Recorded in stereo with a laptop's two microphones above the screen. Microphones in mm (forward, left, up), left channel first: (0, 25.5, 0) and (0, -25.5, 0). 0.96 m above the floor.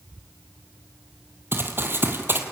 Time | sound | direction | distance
1.5 | running footsteps | 45° right (ahead or behind) | 1.7 m